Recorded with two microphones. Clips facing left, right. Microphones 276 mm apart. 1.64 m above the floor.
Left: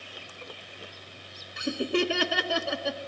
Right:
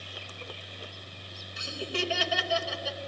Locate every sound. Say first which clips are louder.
1.6 s laughter: left 8 dB; 65° left (ahead or behind), 1.1 m